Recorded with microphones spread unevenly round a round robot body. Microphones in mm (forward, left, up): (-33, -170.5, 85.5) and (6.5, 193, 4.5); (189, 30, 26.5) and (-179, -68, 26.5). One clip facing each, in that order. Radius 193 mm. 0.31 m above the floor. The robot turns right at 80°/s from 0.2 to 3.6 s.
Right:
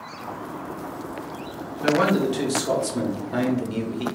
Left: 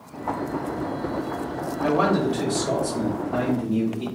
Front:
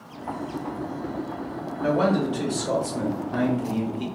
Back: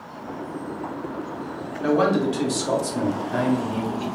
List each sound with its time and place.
1.8 s a man speaking: 155° left, 1.0 m; by 4.0 s 60° right, 1.0 m